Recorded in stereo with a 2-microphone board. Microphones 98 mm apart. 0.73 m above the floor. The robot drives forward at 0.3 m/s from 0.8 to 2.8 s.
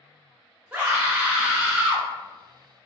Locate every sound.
0.7 s a scream: 15° right (ahead or behind), 0.9 m